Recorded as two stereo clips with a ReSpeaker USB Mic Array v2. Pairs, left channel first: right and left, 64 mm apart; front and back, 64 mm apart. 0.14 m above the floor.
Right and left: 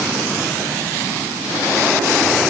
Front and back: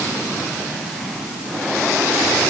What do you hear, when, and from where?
Only background noise.